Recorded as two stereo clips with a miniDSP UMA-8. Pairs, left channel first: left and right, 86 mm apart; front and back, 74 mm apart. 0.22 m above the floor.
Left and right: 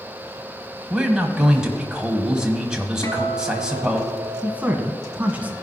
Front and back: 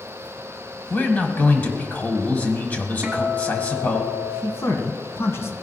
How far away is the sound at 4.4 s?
About 1.4 m.